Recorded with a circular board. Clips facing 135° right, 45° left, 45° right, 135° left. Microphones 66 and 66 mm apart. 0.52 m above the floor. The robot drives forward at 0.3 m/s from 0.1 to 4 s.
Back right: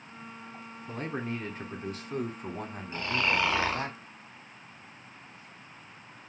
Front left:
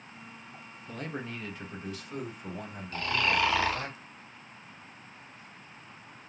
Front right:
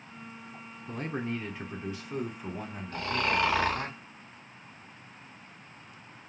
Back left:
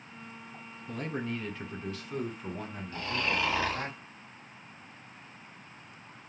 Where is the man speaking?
85° right, 1.3 m; by 3.9 s 135° right, 1.6 m.